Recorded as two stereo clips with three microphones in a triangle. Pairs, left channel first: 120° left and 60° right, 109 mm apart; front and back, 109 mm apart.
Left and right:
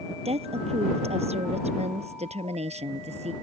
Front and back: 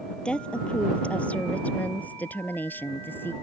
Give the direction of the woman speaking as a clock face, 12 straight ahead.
3 o'clock.